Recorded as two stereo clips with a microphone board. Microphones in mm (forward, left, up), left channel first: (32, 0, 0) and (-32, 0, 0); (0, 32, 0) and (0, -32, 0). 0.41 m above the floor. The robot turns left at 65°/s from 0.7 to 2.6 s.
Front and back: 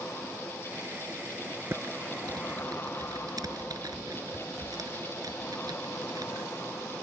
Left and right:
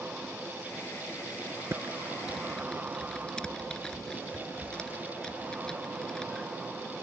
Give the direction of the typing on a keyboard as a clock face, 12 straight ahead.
4 o'clock.